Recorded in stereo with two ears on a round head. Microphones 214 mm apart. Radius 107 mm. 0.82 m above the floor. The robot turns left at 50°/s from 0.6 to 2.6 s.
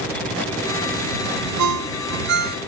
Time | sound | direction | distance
1.6 | a ringtone | 90° right | ?